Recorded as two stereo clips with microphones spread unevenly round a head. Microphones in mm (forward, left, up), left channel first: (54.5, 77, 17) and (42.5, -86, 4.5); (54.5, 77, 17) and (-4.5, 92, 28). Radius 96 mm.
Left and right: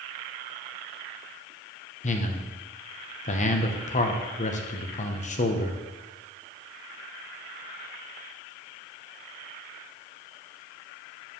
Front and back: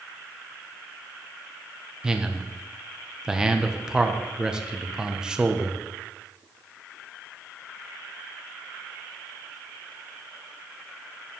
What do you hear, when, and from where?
2.0 s a man speaking: 80° left, 0.9 m